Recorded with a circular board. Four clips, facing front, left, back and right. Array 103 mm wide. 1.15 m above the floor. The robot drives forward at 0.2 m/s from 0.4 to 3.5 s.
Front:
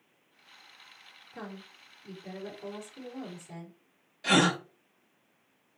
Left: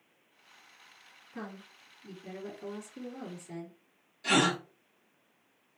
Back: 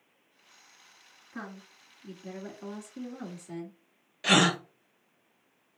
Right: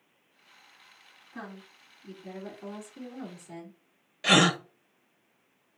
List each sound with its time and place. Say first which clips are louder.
1.3 s a woman speaking: even, back 1 dB; 175° right, 2 m
4.2 s a gasp: right 4 dB, back 1 dB; 120° right, 0.6 m